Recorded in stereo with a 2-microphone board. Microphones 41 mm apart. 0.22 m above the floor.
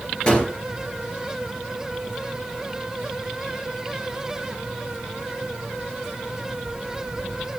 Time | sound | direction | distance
0.3 | a gunshot | 25° left (ahead or behind) | 4.5 m